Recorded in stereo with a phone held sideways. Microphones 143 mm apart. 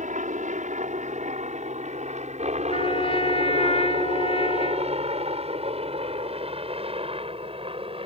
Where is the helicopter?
60° right (ahead or behind); by 8.1 s 40° right (ahead or behind).